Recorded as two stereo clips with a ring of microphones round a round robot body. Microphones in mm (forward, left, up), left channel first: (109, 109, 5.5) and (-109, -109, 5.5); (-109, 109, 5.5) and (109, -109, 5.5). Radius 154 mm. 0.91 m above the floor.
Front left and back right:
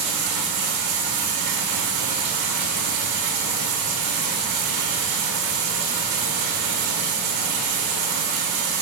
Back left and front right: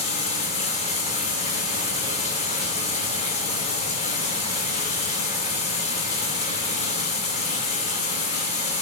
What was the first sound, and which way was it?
Running water, 155° right.